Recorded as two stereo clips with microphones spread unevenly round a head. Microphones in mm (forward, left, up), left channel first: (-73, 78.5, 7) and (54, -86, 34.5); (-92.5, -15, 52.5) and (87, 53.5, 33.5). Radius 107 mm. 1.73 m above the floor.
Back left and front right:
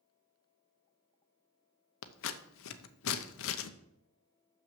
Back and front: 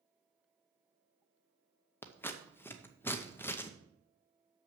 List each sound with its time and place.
2.0 s scissors: 130° left, 0.6 m